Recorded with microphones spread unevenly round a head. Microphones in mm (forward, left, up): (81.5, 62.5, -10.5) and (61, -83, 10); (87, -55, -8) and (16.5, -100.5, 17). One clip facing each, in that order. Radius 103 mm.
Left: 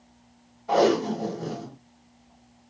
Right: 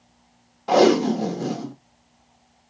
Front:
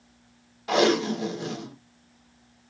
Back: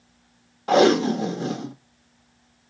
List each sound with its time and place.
0.7 s tape being pulled: 100° right, 1.3 m